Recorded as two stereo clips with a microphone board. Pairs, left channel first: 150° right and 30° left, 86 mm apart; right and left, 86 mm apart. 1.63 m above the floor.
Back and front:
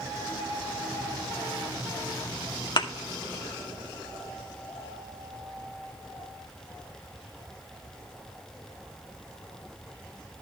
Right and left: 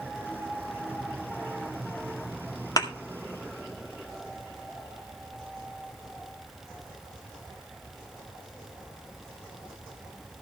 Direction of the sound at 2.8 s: 125° right.